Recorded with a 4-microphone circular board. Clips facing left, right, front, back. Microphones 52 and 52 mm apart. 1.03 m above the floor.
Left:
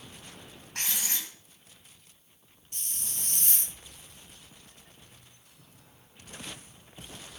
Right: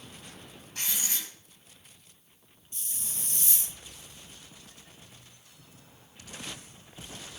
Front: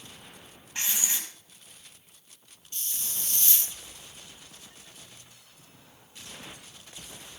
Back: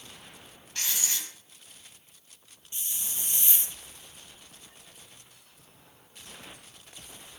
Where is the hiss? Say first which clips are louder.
Left 1 dB, even; 110° left, 0.6 m.